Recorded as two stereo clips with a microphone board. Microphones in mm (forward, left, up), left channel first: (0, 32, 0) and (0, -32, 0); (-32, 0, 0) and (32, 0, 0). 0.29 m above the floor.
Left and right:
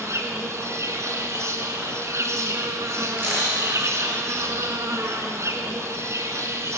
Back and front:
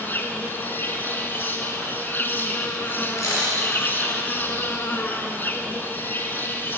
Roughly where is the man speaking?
No man speaking in this recording.